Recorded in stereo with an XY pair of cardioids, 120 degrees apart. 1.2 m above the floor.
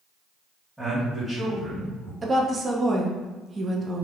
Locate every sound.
0.8 s a man speaking: 5° right, 1.8 m
2.2 s a woman speaking: 30° right, 0.8 m